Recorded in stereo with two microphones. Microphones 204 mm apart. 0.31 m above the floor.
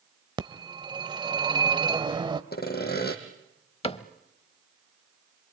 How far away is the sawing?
About 2.5 m.